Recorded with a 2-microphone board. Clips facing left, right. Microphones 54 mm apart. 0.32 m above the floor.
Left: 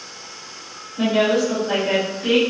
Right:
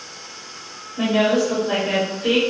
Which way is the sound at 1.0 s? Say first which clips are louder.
Even; 20° right (ahead or behind).